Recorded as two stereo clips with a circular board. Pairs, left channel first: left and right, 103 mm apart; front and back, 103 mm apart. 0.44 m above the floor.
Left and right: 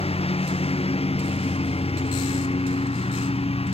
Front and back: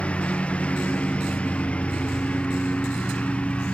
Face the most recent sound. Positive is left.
turn(degrees=80)